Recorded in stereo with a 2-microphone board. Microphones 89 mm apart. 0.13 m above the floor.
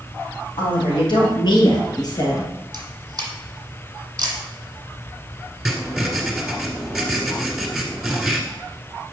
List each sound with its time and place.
0.6 s a woman speaking: 65° left (ahead or behind), 2.5 m; by 2.5 s 40° left (ahead or behind), 2.5 m
2.7 s a camera shutter: 40° right (ahead or behind), 1.5 m
5.7 s writing: 5° right (ahead or behind), 1.6 m